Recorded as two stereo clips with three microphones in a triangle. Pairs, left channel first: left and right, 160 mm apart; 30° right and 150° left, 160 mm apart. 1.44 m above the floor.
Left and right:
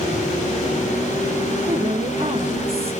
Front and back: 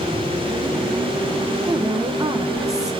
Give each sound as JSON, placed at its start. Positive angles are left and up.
{"t": 1.7, "sound": "a woman speaking", "azimuth_deg": -140, "distance_m": 1.4}